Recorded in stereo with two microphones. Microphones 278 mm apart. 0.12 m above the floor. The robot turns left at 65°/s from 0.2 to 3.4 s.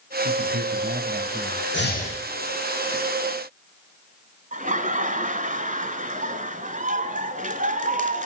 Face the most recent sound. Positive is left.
turn(degrees=-25)  # may be behind; listen again after turning